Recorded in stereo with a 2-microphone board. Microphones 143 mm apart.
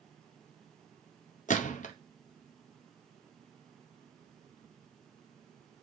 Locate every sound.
1.5 s a gunshot: 60° left (ahead or behind), 0.6 m